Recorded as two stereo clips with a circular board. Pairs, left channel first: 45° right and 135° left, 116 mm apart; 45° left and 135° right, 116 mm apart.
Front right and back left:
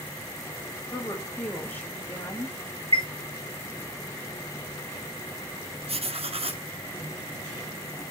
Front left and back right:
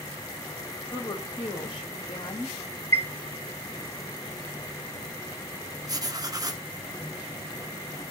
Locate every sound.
0.9 s a woman speaking: 25° left, 1.1 m
2.9 s a chime: 110° left, 0.9 m
5.9 s writing: 170° left, 0.5 m